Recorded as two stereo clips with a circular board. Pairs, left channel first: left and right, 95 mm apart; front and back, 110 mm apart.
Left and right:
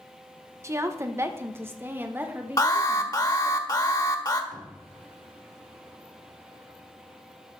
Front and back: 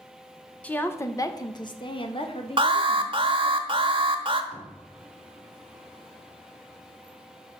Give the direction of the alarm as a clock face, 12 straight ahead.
7 o'clock.